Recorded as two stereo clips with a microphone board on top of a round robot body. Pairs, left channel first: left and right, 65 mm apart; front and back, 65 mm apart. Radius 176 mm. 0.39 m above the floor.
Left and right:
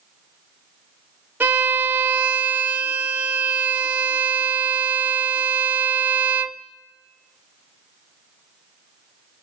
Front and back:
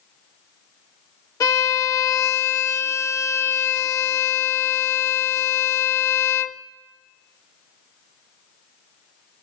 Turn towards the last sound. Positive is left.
turn(degrees=-30)